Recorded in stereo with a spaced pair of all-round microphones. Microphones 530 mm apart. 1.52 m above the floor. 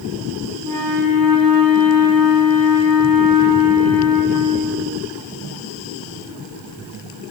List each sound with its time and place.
0.6 s a flute: 40° right (ahead or behind), 0.6 m